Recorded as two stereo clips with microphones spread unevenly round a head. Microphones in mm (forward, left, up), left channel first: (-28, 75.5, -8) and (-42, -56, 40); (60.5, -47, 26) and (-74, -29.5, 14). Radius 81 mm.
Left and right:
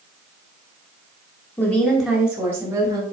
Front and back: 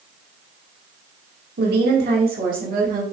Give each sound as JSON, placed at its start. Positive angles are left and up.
{"t": 1.6, "sound": "a woman speaking", "azimuth_deg": 160, "distance_m": 2.0}